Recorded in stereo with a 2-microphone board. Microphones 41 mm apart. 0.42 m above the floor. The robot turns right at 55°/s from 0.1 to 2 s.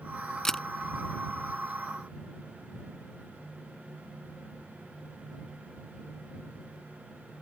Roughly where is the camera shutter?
Centre.